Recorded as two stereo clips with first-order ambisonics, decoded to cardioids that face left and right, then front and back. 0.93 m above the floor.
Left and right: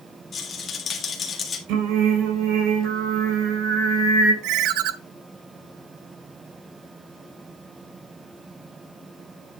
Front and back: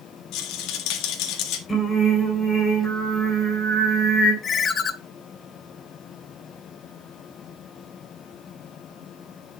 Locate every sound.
0.3 s a rattle: 25° left, 1.6 m
1.7 s singing: 80° right, 7 m
4.4 s a ringtone: 65° right, 0.7 m